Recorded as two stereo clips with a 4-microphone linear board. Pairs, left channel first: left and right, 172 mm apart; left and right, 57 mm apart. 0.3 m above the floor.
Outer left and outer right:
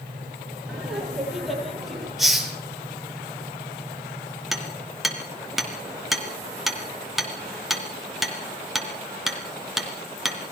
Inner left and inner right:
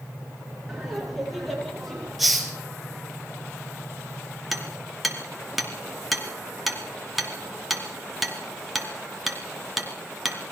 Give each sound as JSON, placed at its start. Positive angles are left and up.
{"t": 0.7, "sound": "laughter", "side_deg": -5, "distance_m": 7.0}
{"t": 2.2, "sound": "a hiss", "side_deg": 0, "distance_m": 3.5}
{"t": 4.5, "sound": "hammering", "side_deg": 0, "distance_m": 3.0}